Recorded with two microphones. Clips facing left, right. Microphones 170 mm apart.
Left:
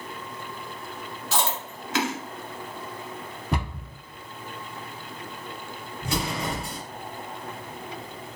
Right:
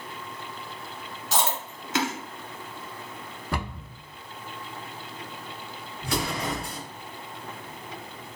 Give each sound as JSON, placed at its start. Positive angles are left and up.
{"t": 1.3, "sound": "chewing", "side_deg": -20, "distance_m": 1.2}
{"t": 3.5, "sound": "a cupboard door", "side_deg": 20, "distance_m": 0.9}
{"t": 6.0, "sound": "an explosion", "side_deg": 25, "distance_m": 1.9}